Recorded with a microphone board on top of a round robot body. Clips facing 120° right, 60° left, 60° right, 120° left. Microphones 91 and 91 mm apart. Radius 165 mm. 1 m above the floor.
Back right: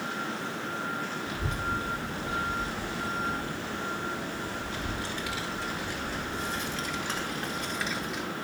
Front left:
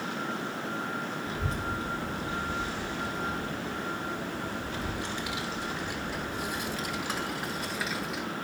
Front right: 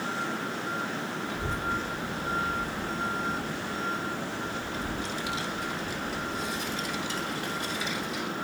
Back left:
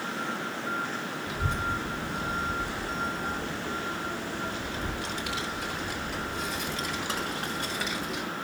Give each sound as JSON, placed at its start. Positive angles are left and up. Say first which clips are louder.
{"t": 1.3, "sound": "a child speaking", "louder": "back right 1 dB, back left 2 dB", "azimuth_deg": 115, "distance_m": 6.5}